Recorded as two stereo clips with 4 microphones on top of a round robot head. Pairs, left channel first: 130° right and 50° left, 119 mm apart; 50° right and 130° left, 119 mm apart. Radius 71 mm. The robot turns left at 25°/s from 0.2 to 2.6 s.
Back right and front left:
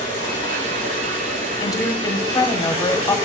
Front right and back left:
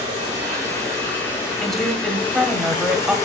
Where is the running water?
75° left, 2.5 m; by 3.2 s 15° left, 2.5 m.